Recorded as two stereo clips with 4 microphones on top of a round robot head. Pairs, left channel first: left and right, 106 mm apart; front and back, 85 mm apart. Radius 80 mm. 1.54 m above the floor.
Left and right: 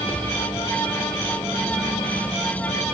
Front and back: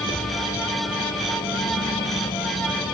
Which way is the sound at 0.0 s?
20° left.